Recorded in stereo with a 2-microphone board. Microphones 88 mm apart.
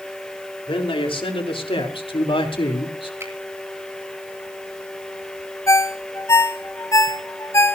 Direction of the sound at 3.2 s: 30° right (ahead or behind).